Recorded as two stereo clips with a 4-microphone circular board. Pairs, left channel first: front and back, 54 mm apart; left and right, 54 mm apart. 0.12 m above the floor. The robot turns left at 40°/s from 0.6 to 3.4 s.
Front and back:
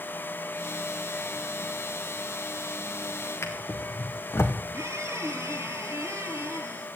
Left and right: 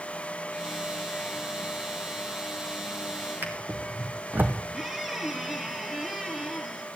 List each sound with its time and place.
3.4 s a drawer: 35° right, 1.9 m
4.7 s a squeak: 175° right, 1.6 m